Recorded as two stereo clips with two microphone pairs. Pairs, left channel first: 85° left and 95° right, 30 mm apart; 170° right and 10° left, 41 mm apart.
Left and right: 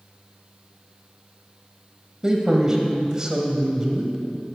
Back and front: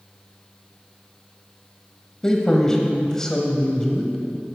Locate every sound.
2.2 s a man speaking: 115° right, 1.2 m